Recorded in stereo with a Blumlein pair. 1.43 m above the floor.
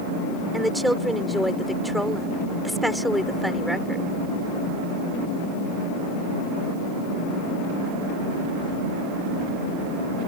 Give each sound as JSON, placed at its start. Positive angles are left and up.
{"t": 0.5, "sound": "a woman speaking", "azimuth_deg": 0}